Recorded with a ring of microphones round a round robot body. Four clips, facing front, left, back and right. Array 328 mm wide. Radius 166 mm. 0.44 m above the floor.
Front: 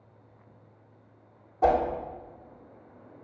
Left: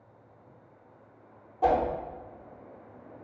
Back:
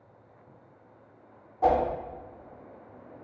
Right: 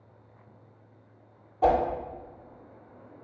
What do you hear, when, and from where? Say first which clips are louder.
1.6 s a whoosh: right 2 dB, front 1 dB; 30° right, 0.9 m